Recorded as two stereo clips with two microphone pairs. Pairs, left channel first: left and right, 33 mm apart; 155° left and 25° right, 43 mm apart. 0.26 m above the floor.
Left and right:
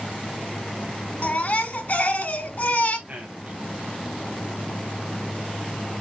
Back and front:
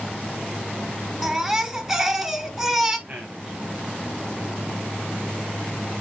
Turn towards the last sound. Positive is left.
turn(degrees=-75)